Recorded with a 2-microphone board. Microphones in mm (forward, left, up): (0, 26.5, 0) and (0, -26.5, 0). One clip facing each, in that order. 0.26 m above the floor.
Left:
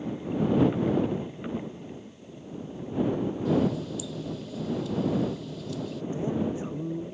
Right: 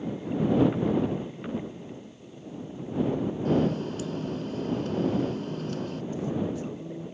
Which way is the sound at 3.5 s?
45° right (ahead or behind).